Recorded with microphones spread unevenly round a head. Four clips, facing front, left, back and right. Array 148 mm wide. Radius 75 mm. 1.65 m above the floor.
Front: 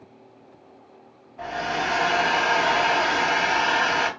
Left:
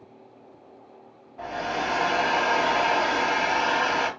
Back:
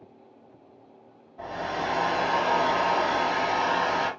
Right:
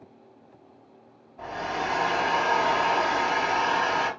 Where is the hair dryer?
95° left, 1.7 m.